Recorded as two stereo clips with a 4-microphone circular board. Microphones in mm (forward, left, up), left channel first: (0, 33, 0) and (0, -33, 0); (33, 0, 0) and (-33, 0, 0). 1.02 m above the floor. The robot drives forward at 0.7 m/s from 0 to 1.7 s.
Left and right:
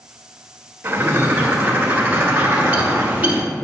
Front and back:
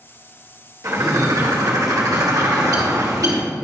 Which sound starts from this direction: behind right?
A bird, at 0.8 s.